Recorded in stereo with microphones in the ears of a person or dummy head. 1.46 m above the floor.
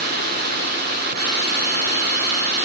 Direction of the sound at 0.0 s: 50° right (ahead or behind).